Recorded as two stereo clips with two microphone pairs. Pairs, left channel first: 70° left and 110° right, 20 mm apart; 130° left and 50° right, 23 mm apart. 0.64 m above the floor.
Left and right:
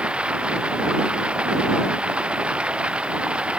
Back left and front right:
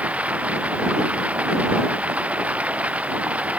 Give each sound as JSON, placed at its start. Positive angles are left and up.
{"t": 0.0, "sound": "running water", "azimuth_deg": -75}